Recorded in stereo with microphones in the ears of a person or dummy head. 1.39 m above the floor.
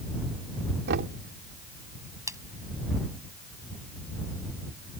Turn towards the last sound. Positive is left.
turn(degrees=-20)  # may be behind; listen again after turning